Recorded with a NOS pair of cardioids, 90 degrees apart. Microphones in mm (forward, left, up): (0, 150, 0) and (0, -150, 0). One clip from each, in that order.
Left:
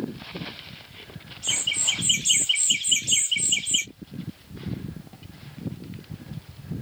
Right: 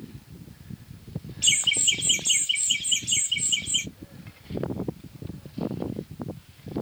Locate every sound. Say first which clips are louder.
1.4 s laughter: right 3 dB; 60° right, 0.6 m; by 3.9 s 50° left, 1.3 m